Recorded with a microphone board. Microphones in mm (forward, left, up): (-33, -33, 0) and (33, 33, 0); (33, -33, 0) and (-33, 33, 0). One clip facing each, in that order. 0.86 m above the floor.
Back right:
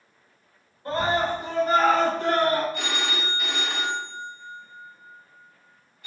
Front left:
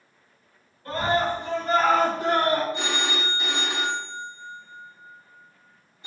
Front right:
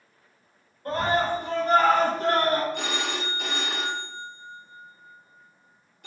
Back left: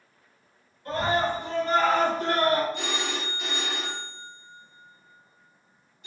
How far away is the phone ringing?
About 0.6 m.